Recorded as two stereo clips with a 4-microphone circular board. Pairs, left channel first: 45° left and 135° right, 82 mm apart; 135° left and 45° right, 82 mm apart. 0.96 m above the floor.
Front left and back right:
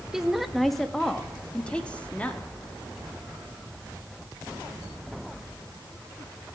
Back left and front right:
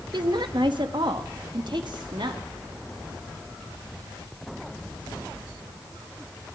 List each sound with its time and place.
0.1 s a woman speaking: 50° right, 1.4 m; by 2.4 s 25° right, 2.5 m